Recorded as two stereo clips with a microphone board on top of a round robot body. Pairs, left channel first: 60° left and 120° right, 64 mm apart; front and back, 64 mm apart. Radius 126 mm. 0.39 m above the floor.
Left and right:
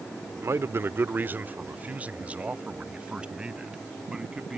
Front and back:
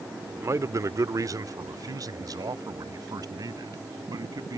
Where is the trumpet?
No trumpet in this recording.